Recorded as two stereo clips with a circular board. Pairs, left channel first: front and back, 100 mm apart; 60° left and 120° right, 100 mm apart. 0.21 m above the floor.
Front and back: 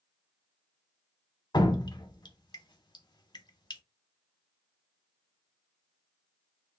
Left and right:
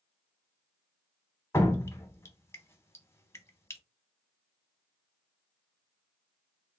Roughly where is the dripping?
Ahead.